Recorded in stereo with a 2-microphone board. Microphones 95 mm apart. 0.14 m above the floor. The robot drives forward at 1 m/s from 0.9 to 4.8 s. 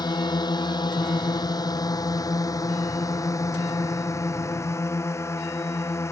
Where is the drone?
45° left (ahead or behind); by 6.1 s 30° left (ahead or behind).